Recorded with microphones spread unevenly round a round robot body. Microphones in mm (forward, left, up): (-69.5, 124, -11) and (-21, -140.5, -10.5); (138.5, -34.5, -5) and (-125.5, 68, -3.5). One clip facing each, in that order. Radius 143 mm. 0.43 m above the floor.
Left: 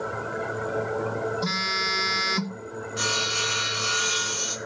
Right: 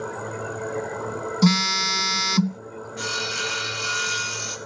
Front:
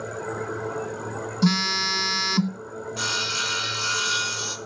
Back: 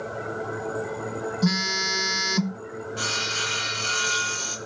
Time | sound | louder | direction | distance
1.4 | a phone buzzing | right 10 dB, front 4 dB | 90° right | 0.6 m
3.0 | sawing | right 1 dB, back 1 dB | 30° left | 3.5 m